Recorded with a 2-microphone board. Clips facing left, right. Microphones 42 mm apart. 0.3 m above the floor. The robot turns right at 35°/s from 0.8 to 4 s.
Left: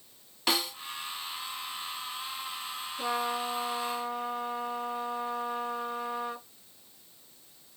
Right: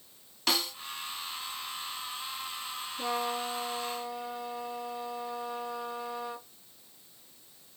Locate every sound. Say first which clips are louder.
0.5 s a snare drum: left 1 dB; 15° left (ahead or behind), 0.9 m
3.0 s a trumpet: left 1 dB; 15° left, 4 m; by 6.5 s 50° left, 4 m